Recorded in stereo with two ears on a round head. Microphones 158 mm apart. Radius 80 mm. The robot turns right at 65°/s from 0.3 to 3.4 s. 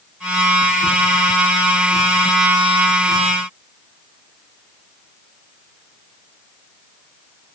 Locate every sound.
Only background noise.